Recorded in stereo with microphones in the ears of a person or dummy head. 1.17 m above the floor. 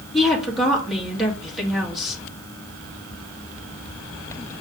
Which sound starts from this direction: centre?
A woman speaking, at 0.1 s.